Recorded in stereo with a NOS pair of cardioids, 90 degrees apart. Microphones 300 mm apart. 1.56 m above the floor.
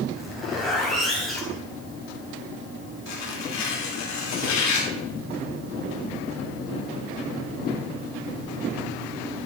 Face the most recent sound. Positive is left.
turn(degrees=65)